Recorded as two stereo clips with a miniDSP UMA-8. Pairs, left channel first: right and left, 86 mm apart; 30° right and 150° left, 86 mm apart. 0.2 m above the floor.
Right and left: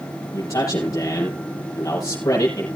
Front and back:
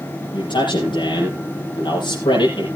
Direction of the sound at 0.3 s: 35° right.